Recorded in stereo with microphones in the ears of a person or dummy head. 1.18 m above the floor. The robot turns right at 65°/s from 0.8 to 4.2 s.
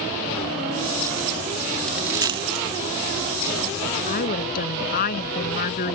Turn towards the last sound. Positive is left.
turn(degrees=55)  # may be behind; listen again after turning